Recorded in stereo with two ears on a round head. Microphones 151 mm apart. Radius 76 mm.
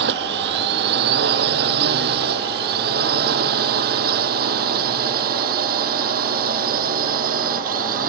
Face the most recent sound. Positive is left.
turn(degrees=-55)  # may be behind; listen again after turning